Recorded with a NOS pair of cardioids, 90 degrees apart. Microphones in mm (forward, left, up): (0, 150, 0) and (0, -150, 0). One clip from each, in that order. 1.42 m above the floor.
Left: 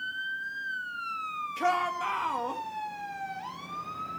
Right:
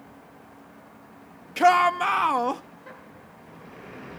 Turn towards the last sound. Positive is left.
turn(degrees=-55)